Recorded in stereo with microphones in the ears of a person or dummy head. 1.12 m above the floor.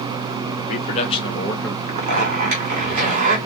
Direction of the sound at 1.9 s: 50° right (ahead or behind).